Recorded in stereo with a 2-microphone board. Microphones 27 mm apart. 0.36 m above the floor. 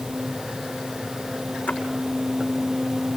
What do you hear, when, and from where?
1.7 s a splash: 80° left, 6.5 m